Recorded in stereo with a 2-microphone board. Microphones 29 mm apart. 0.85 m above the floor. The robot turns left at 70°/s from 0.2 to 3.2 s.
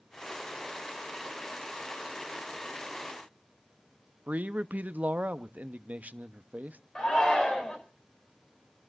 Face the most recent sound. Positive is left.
turn(degrees=30)  # may be behind; listen again after turning